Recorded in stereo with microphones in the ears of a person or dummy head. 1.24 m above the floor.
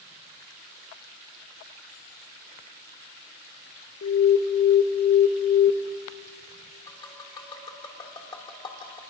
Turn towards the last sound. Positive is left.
turn(degrees=25)  # may be behind; listen again after turning